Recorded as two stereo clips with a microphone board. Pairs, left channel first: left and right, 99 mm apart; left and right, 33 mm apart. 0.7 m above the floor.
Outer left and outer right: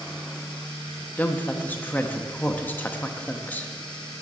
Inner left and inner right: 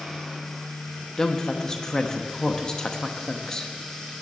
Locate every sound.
1.2 s a woman speaking: 20° left (ahead or behind), 0.9 m